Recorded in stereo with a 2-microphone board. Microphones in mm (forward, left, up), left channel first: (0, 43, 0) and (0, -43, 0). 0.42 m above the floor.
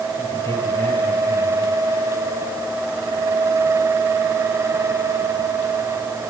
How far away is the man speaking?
About 7.5 m.